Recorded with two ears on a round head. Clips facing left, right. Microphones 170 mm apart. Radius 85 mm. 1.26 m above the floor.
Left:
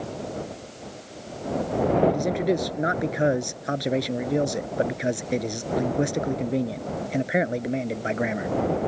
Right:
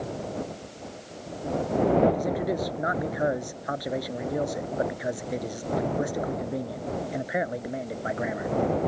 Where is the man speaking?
30° left (ahead or behind).